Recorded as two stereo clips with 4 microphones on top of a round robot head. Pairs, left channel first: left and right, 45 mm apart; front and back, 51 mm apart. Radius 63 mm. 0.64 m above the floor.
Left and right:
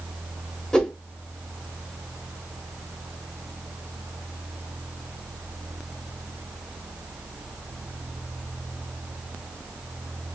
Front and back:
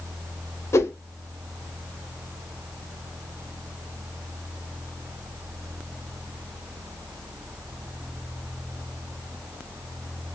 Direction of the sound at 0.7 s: 15° left.